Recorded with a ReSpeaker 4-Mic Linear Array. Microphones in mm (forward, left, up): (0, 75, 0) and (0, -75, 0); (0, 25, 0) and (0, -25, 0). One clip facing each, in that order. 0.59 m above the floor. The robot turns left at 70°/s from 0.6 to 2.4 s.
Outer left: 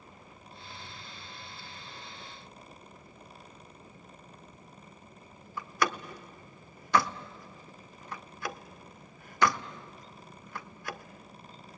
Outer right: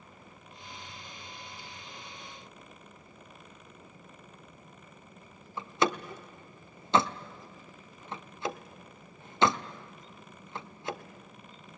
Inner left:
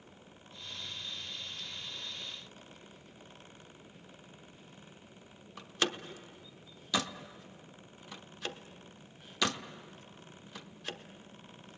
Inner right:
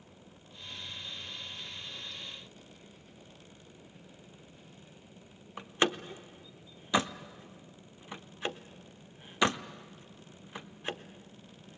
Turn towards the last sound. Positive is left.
turn(degrees=-25)  # may be behind; listen again after turning